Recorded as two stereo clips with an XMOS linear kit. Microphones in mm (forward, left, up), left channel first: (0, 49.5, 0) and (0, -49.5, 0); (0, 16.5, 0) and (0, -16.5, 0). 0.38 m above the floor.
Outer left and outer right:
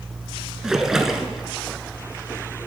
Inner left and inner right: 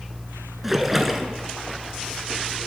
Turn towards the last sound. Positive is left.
turn(degrees=-5)  # may be behind; listen again after turning